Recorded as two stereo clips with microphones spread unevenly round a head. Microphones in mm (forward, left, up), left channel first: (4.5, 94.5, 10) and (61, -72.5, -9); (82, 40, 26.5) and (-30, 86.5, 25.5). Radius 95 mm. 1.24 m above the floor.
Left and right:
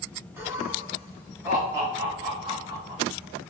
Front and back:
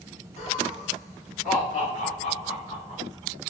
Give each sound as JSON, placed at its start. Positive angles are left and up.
{"t": 0.4, "sound": "laughter", "azimuth_deg": 5, "distance_m": 2.0}